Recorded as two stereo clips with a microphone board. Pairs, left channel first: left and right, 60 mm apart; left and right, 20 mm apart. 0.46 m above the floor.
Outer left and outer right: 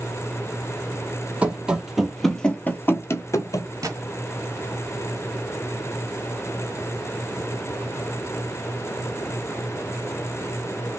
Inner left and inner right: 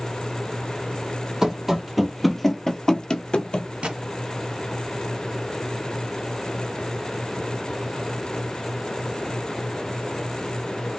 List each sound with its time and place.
1.4 s running footsteps: 20° right (ahead or behind), 1.0 m; by 3.7 s 65° left (ahead or behind), 0.8 m
3.8 s a gunshot: 80° right, 1.2 m